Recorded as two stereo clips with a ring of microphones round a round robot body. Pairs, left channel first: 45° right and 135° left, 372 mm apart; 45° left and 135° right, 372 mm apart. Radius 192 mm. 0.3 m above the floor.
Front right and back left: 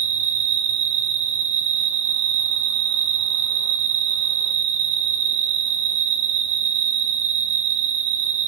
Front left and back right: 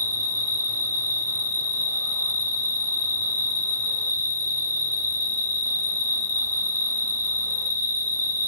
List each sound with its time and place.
0.0 s an insect: 130° left, 2.5 m